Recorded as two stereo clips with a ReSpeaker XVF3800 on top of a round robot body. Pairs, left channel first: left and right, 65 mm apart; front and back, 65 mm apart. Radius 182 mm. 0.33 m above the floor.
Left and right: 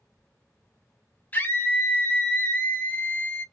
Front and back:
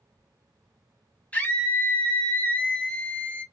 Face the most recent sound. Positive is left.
turn(degrees=45)